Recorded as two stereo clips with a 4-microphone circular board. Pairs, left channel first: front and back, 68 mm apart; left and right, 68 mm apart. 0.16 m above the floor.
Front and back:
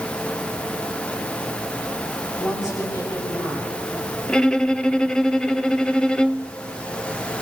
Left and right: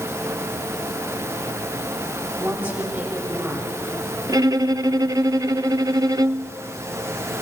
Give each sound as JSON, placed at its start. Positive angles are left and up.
{"t": 2.4, "sound": "a woman speaking", "azimuth_deg": -30, "distance_m": 5.0}
{"t": 4.3, "sound": "a violin", "azimuth_deg": -80, "distance_m": 0.5}